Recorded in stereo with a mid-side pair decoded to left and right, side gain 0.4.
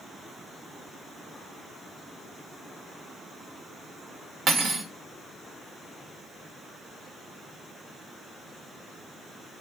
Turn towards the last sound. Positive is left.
turn(degrees=-60)